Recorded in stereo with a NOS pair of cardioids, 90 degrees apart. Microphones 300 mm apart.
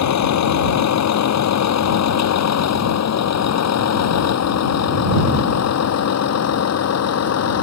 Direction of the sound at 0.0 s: 65° left.